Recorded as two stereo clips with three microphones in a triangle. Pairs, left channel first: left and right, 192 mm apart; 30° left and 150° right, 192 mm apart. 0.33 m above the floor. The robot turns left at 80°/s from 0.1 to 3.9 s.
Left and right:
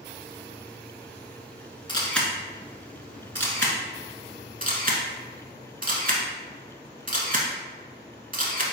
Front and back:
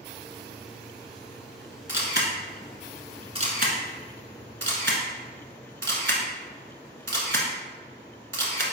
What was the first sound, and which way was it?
A camera shutter, 30° left.